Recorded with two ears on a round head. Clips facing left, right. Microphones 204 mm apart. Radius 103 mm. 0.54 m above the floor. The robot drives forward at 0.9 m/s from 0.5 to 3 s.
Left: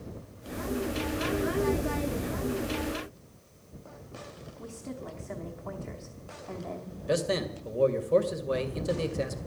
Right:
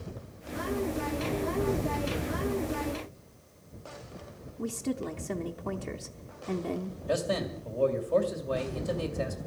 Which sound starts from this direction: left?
A man speaking, at 7.1 s.